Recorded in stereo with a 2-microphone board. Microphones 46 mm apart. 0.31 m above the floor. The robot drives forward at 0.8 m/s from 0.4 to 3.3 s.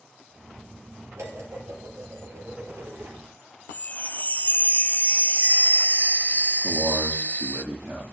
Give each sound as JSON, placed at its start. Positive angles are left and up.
{"t": 1.2, "sound": "dishes clattering", "side_deg": -80, "distance_m": 5.0}
{"t": 3.7, "sound": "a chime", "side_deg": 40, "distance_m": 0.8}
{"t": 6.6, "sound": "a man speaking", "side_deg": -80, "distance_m": 7.5}